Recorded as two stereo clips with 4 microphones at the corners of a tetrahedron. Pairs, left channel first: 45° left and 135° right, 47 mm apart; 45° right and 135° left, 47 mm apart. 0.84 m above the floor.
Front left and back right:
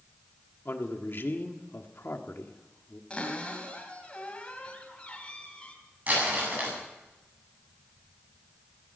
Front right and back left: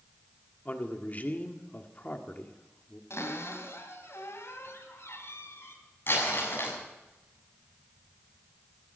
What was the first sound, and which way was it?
A man speaking, 10° left.